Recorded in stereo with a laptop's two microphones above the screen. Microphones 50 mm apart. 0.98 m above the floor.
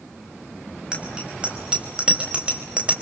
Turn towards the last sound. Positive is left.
turn(degrees=-25)  # may be behind; listen again after turning